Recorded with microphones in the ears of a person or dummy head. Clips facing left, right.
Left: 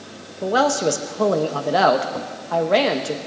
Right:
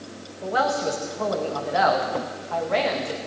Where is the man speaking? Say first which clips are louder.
Left 5 dB; 65° left (ahead or behind), 0.9 m.